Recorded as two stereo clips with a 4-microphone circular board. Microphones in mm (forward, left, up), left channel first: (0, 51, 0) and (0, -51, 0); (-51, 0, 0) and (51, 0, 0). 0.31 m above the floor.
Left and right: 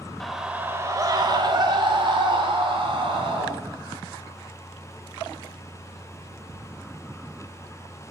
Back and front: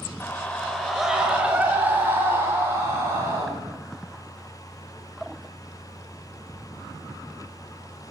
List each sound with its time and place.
0.2 s a scream: 170° left, 0.9 m; by 3.5 s 65° right, 3 m